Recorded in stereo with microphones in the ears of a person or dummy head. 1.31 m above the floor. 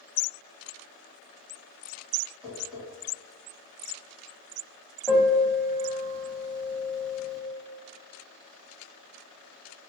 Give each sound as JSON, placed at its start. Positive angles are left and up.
{"t": 2.4, "sound": "tapping", "side_deg": 0, "distance_m": 1.8}
{"t": 5.1, "sound": "a piano", "side_deg": 0, "distance_m": 0.6}